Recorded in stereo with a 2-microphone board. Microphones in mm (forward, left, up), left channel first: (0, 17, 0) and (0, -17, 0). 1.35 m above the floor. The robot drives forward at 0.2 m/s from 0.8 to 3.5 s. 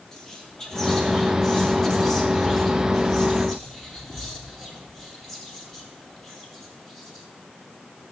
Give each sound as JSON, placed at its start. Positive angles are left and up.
{"t": 0.1, "sound": "whispering", "side_deg": 20, "distance_m": 1.8}